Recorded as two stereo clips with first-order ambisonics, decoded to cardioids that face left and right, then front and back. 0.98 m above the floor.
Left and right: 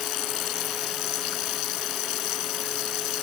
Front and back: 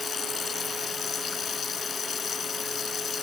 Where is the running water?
65° left.